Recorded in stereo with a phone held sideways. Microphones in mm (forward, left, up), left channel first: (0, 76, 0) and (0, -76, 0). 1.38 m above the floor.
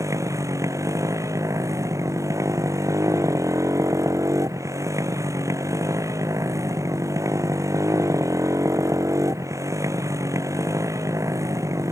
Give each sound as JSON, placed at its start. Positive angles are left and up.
{"t": 0.0, "sound": "a motorcycle", "side_deg": -20}